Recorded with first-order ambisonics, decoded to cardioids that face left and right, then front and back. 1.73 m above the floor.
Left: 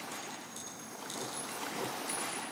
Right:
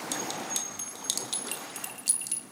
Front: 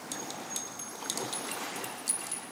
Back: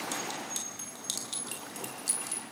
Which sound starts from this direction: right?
A clink, at 0.1 s.